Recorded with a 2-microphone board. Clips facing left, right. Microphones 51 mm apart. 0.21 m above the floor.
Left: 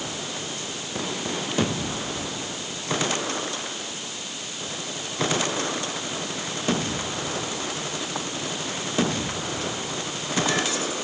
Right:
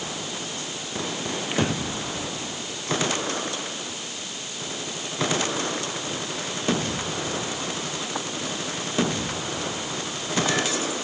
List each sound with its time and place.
1.5 s breathing: 35° right (ahead or behind)